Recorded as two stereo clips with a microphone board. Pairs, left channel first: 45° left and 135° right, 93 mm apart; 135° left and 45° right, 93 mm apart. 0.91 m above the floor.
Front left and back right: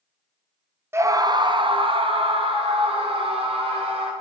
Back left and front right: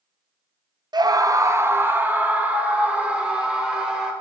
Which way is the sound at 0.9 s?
75° right.